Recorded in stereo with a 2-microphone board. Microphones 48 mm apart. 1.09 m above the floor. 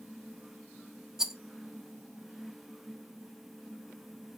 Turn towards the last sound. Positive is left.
turn(degrees=-10)  # may be behind; listen again after turning